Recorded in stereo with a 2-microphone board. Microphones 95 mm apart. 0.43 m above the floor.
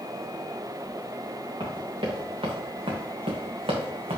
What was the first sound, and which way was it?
Running footsteps, 55° right (ahead or behind).